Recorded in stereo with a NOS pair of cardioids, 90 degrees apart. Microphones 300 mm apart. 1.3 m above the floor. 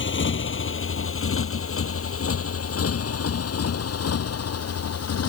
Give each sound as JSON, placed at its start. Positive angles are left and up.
{"t": 0.0, "sound": "a motorcycle", "azimuth_deg": 40}